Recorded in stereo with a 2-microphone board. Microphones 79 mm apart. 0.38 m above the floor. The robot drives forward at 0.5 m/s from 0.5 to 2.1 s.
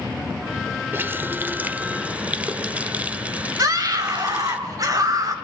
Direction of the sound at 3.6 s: 50° right (ahead or behind).